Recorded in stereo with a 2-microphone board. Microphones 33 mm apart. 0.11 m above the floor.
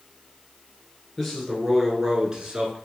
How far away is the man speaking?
About 1.5 m.